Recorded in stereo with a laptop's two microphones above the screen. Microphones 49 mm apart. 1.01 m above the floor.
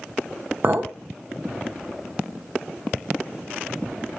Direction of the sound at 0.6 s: 50° right (ahead or behind).